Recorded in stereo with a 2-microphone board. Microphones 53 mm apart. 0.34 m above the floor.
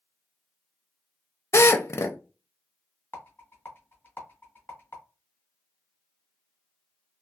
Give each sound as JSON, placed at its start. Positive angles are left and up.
{"t": 1.5, "sound": "a drill", "side_deg": 55, "distance_m": 0.5}
{"t": 3.1, "sound": "a rattle", "side_deg": 35, "distance_m": 1.4}